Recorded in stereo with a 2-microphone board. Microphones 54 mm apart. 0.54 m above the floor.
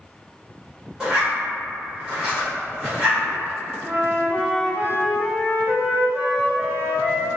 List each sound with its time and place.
1.0 s a zipper: 20° right (ahead or behind), 1.1 m
3.8 s a flute: 45° right (ahead or behind), 1.2 m